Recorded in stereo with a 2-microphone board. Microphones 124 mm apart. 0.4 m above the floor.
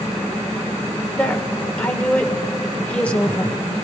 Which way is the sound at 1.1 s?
10° left (ahead or behind).